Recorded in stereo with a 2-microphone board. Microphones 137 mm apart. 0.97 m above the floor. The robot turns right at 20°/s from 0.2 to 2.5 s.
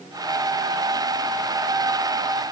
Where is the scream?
I don't hear a scream.